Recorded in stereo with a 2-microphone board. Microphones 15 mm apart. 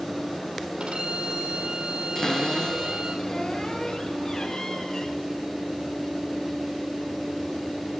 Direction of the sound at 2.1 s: 35° left (ahead or behind).